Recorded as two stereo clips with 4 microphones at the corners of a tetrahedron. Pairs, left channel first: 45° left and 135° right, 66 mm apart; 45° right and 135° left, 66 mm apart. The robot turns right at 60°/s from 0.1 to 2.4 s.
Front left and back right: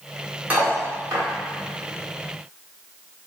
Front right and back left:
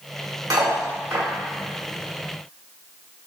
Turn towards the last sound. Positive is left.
turn(degrees=-85)